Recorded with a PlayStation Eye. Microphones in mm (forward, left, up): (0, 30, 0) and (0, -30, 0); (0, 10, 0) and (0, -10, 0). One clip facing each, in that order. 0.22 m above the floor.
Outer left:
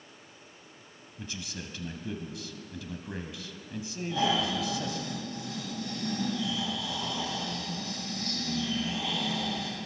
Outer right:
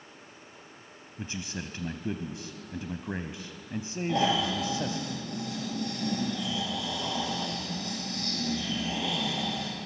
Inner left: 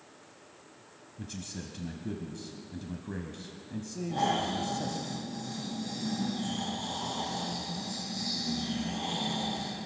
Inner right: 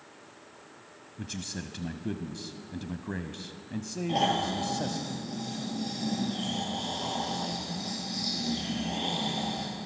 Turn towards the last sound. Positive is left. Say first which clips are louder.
# outer right 1 dB, inner right 2 dB
turn(degrees=-75)  # may be behind; listen again after turning